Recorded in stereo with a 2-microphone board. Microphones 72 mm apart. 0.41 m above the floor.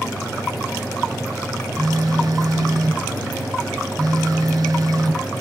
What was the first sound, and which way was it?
A phone buzzing, 60° right (ahead or behind).